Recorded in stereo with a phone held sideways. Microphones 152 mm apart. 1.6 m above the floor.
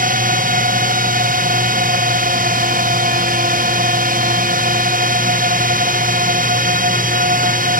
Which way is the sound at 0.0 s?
65° right (ahead or behind).